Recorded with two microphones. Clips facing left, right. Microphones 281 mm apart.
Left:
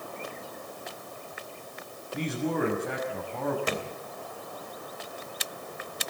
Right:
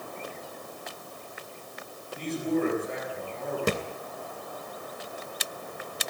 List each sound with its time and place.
2.1 s a man speaking: 85° left, 6 m
3.7 s a thud: 50° right (ahead or behind), 2.5 m